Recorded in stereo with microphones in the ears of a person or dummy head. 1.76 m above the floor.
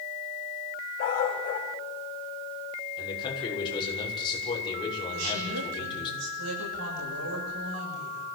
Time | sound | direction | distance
1.0 | a dog barking | 45° left (ahead or behind) | 3.5 m
3.0 | a man speaking | 25° left (ahead or behind) | 7 m
5.1 | a woman speaking | 80° right | 9 m